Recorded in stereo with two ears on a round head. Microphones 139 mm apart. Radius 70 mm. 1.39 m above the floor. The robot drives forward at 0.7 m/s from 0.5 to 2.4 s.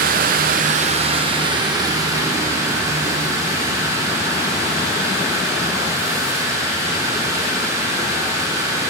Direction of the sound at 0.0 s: 60° right (ahead or behind).